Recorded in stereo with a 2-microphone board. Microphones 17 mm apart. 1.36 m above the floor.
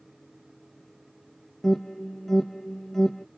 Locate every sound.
1.6 s an alarm: 20° left (ahead or behind), 0.9 m